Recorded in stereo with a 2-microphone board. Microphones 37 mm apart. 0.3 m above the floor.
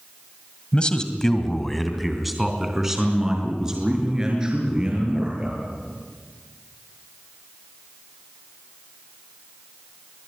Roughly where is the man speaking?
Left.